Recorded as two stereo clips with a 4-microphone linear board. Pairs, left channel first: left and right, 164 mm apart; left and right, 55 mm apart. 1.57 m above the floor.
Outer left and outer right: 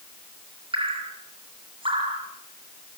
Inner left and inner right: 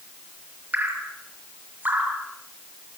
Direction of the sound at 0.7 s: 35° right (ahead or behind).